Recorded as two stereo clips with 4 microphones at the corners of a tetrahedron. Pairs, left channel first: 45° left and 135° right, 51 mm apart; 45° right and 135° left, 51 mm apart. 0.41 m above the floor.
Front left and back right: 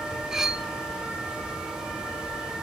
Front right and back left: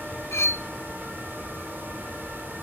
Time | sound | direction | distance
0.3 | cutlery clinking | 60° right | 0.9 m